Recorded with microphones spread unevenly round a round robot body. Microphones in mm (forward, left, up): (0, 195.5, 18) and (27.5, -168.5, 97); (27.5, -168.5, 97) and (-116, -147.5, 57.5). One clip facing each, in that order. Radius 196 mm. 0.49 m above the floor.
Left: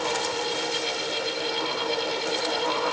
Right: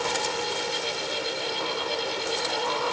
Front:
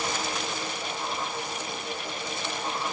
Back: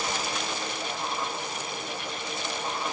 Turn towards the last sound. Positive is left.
No sound to turn to.